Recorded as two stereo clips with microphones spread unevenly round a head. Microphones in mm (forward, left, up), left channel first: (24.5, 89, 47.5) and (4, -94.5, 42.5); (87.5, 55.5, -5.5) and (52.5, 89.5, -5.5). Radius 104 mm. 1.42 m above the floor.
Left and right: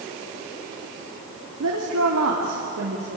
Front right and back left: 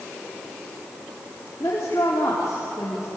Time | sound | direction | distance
1.6 | a woman speaking | 100° right | 2.5 m